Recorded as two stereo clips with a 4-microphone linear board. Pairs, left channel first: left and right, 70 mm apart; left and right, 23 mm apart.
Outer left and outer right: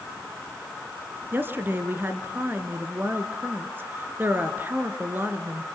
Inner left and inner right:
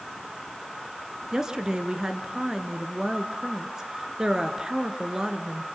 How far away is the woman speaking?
About 1.8 m.